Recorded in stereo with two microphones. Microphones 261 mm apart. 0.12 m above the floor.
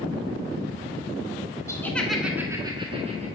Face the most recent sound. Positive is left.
turn(degrees=-25)  # may be behind; listen again after turning